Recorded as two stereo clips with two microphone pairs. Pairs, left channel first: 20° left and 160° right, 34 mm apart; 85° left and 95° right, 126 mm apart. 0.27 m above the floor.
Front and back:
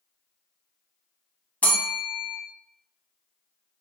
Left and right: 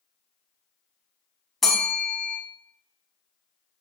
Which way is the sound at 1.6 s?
Straight ahead.